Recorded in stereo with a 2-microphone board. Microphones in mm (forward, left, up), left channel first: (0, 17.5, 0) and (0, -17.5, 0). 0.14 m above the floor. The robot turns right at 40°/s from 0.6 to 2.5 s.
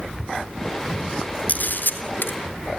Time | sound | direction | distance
1.5 | a camera shutter | 50° left (ahead or behind) | 2 m